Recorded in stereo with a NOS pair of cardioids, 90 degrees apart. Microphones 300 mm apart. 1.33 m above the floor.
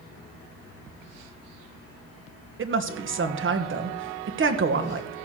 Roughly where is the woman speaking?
Ahead right.